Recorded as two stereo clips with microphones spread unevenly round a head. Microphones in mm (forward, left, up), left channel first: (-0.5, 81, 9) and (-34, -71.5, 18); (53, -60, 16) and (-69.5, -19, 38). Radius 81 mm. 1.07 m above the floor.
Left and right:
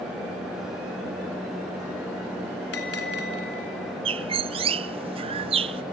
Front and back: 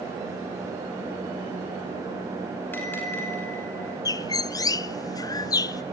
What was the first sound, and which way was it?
A bell, 55° left.